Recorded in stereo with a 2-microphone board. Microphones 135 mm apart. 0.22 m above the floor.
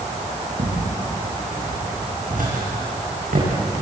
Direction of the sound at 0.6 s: 80° right.